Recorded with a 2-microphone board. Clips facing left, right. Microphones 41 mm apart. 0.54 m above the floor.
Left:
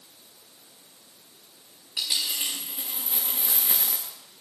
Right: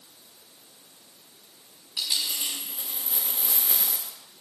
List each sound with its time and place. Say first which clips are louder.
2.0 s a dropped coin: left 1 dB; 75° left (ahead or behind), 8 m